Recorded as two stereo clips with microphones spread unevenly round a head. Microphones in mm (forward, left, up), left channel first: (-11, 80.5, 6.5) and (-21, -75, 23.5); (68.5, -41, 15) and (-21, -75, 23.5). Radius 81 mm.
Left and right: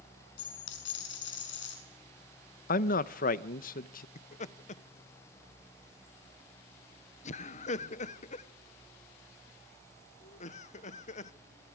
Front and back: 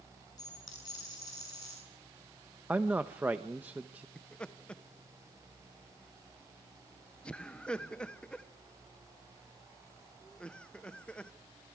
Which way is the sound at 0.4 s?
90° left.